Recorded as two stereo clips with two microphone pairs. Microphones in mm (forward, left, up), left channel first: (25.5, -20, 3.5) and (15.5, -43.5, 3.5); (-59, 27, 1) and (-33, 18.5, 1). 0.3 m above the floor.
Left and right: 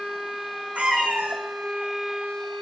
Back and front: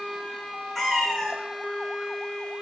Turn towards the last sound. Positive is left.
turn(degrees=-125)